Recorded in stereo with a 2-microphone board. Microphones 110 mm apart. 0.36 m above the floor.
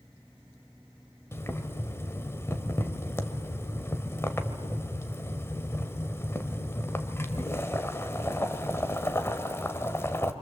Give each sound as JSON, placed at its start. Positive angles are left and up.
{"t": 1.3, "sound": "boiling", "side_deg": 25, "distance_m": 1.4}